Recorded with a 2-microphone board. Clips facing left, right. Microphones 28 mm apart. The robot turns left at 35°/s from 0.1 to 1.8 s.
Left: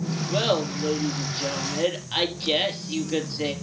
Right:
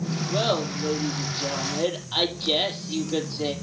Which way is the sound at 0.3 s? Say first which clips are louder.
Left 1 dB; 70° left (ahead or behind).